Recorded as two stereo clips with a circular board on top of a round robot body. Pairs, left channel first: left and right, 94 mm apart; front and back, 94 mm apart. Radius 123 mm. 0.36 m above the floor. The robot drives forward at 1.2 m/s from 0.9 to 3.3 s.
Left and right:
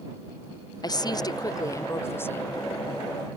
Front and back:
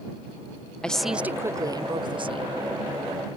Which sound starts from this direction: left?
A woman speaking, at 0.8 s.